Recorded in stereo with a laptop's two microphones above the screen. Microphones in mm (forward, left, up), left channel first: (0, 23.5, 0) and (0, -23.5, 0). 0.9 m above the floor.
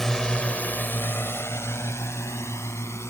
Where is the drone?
10° left (ahead or behind); by 3.1 s 85° left.